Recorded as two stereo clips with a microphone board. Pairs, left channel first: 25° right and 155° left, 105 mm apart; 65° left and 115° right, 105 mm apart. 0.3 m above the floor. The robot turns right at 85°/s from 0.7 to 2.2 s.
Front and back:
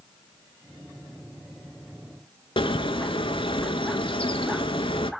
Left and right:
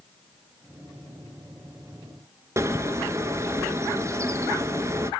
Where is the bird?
50° right, 0.7 m.